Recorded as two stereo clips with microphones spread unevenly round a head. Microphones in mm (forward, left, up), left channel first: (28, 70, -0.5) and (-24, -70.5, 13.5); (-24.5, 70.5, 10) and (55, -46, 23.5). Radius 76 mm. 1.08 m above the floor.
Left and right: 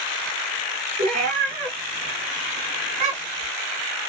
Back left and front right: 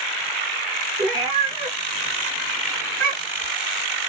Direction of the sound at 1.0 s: 120° right.